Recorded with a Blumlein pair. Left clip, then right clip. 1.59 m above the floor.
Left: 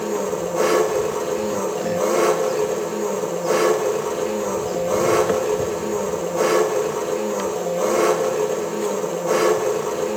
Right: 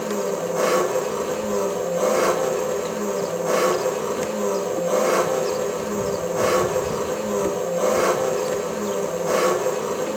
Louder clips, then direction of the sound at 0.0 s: Left 1 dB; straight ahead.